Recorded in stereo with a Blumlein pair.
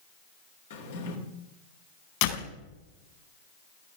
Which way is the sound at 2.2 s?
50° left.